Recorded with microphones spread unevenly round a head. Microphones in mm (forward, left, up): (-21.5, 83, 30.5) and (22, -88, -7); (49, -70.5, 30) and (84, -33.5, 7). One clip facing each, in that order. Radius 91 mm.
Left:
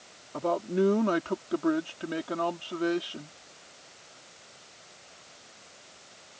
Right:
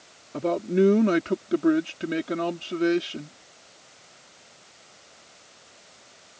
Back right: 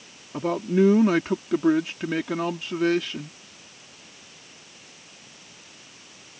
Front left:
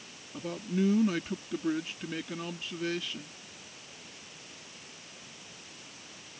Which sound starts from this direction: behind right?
A man speaking, at 0.3 s.